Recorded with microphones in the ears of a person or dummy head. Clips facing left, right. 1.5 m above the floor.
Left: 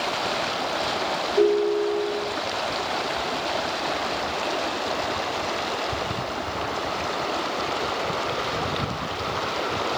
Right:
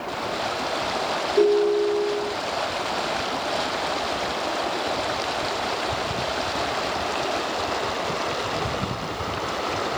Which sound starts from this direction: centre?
A ringtone, at 1.4 s.